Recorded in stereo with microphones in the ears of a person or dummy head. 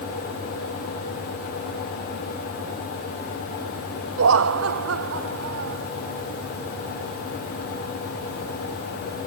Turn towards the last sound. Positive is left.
turn(degrees=-85)